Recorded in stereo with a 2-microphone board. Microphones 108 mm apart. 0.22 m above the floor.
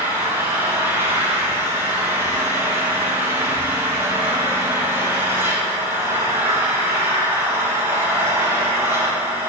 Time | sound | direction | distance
0.0 | an engine running | 20° right (ahead or behind) | 3 m